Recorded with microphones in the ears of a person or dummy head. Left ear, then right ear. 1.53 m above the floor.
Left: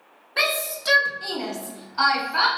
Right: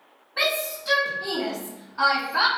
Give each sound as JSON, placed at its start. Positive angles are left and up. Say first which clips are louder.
{"t": 0.4, "sound": "a shout", "louder": "left 1 dB", "side_deg": 80, "distance_m": 0.9}